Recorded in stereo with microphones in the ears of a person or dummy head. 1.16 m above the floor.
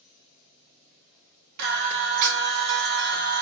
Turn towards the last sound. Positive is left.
turn(degrees=-55)  # may be behind; listen again after turning